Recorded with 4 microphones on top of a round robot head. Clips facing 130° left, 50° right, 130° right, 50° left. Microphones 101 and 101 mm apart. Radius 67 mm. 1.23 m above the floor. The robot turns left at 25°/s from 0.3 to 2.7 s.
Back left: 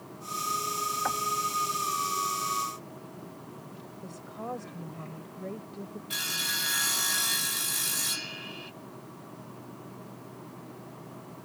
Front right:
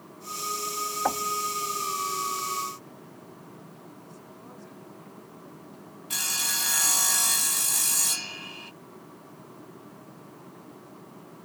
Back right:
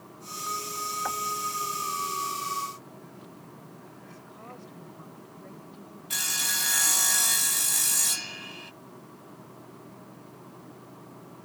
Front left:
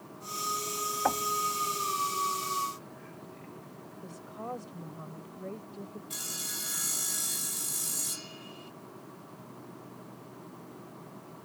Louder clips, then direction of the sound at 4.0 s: Back left 7 dB, front left 9 dB; 100° left.